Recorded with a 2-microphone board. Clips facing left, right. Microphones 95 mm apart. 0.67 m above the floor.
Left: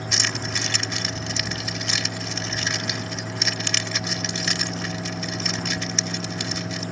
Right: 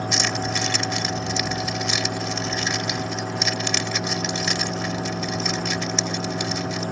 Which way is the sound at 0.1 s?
10° right (ahead or behind).